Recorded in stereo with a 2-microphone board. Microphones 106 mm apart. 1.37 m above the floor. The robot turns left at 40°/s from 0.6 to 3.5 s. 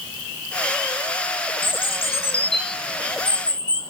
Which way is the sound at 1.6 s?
115° left.